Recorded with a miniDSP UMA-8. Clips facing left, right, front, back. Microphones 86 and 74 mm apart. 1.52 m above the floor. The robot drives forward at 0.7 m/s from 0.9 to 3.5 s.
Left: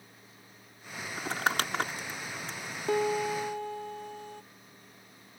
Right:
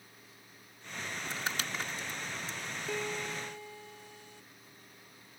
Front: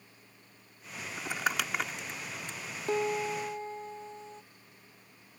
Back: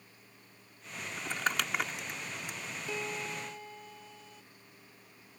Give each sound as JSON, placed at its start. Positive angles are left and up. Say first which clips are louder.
{"t": 1.2, "sound": "crumpling", "louder": "left 9 dB, front 1 dB", "azimuth_deg": 75}
{"t": 2.9, "sound": "a piano", "louder": "left 10 dB, front 9 dB", "azimuth_deg": 50}